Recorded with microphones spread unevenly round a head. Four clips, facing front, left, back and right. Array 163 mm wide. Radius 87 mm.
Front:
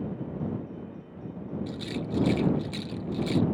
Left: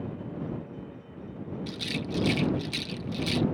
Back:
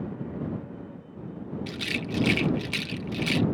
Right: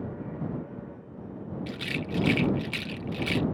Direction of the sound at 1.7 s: 160° right.